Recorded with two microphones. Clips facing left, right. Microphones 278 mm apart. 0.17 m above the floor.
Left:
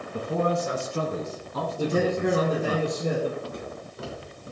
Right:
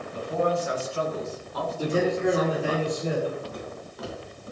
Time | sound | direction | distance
0.1 | a man speaking | 55° left (ahead or behind) | 2.0 m
1.8 | a man speaking | 50° left (ahead or behind) | 5 m
3.4 | footsteps | 30° left (ahead or behind) | 5 m